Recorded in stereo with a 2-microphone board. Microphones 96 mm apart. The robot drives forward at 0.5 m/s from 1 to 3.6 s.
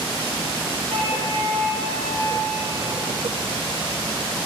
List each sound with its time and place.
0.9 s a flute: 85° right, 7.5 m; by 3.1 s 80° right, 7.5 m